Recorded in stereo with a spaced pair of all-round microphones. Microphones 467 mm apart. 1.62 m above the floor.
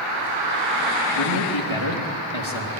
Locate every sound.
1.1 s a man speaking: 70° left (ahead or behind), 3.5 m